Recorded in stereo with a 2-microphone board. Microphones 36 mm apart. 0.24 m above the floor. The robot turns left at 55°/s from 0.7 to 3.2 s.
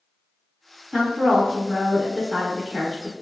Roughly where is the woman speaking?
Right.